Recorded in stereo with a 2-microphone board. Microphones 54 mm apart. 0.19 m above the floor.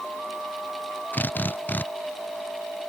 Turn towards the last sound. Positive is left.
turn(degrees=35)  # may be behind; listen again after turning